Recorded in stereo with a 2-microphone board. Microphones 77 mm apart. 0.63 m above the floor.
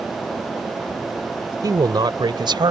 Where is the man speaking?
55° right (ahead or behind); by 2.7 s 75° right (ahead or behind).